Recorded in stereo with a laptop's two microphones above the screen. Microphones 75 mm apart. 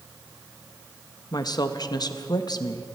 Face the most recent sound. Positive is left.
turn(degrees=60)  # may be behind; listen again after turning